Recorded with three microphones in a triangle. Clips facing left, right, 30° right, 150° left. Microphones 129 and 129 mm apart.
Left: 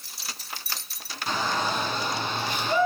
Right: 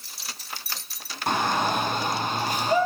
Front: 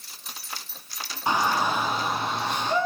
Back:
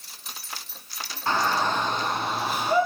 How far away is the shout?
About 2.5 m.